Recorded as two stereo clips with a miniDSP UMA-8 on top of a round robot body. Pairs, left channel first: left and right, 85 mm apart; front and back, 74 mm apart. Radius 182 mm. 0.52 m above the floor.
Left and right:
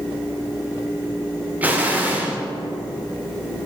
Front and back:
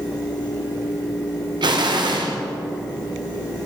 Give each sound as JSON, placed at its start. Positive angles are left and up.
{"t": 1.6, "sound": "an explosion", "azimuth_deg": -160, "distance_m": 0.7}